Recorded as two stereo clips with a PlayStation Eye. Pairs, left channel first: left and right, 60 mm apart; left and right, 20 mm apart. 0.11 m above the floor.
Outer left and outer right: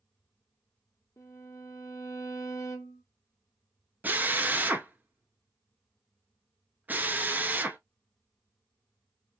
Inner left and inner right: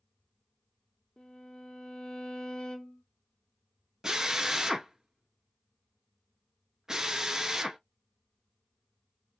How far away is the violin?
About 1.3 m.